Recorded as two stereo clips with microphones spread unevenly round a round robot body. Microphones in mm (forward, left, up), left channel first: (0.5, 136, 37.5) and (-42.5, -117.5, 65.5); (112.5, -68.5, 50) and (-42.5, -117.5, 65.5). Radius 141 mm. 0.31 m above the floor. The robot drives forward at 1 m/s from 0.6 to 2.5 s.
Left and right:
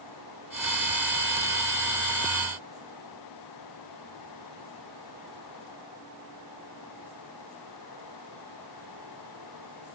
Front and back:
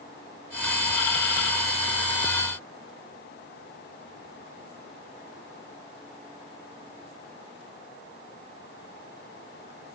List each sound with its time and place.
Only background noise.